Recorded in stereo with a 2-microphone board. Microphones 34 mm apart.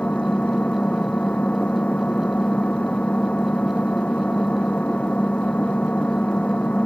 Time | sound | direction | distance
0.0 | an engine running | 35° left (ahead or behind) | ?